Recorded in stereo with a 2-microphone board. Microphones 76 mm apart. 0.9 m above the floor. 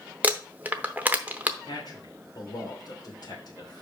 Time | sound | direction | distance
0.2 | crumpling | 20° right (ahead or behind) | 0.8 m
1.7 | a man speaking | 55° left (ahead or behind) | 3 m